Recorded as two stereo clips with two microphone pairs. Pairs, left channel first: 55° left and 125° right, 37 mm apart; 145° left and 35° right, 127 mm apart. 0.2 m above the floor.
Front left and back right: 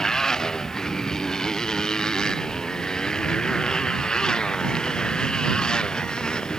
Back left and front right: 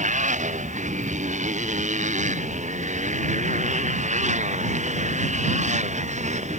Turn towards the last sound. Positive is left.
turn(degrees=-15)